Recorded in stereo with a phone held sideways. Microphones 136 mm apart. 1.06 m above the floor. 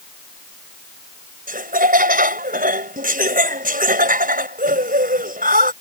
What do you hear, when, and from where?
1.5 s laughter: 80° right